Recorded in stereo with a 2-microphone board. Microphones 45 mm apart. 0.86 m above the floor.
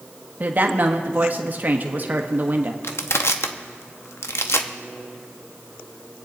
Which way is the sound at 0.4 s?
40° right (ahead or behind).